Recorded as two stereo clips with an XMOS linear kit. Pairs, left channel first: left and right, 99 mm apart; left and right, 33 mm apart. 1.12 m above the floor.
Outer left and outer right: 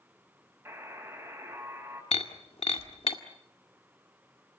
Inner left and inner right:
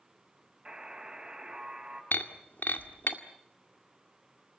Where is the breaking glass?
80° left, 2.0 m.